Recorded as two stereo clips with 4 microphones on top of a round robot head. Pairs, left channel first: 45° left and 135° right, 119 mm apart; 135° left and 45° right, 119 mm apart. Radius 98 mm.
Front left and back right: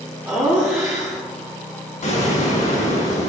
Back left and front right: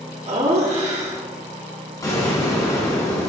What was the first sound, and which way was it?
Laughter, 65° right.